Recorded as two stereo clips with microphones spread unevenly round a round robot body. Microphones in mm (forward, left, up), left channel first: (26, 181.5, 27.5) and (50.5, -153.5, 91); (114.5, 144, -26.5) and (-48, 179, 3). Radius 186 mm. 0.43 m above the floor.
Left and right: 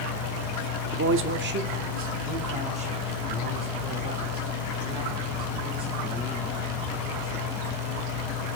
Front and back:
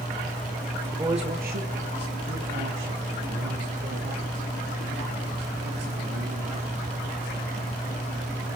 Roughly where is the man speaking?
Right.